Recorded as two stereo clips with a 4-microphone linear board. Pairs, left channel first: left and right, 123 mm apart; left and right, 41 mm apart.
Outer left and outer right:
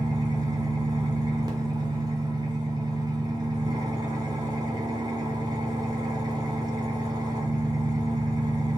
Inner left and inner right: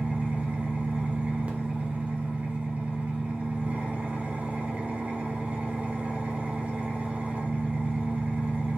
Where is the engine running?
35° right (ahead or behind), 0.8 m.